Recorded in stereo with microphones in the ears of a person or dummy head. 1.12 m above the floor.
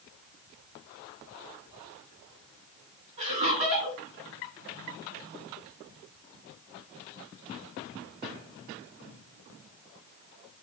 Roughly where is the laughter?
Right.